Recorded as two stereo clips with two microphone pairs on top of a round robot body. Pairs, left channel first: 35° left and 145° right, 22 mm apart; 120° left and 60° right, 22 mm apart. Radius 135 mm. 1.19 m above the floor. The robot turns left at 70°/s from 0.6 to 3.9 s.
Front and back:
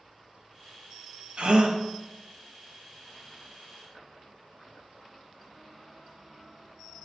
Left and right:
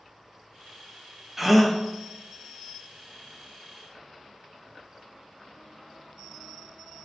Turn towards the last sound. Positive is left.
turn(degrees=35)